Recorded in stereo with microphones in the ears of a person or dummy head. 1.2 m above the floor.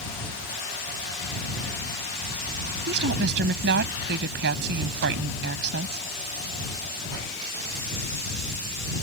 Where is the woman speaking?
65° right (ahead or behind).